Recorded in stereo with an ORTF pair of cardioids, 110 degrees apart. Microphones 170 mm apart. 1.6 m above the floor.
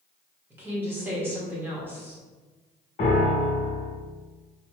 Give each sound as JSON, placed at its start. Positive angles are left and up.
{"t": 0.5, "sound": "a woman speaking", "azimuth_deg": -10, "distance_m": 1.8}
{"t": 3.0, "sound": "a piano", "azimuth_deg": 45, "distance_m": 1.2}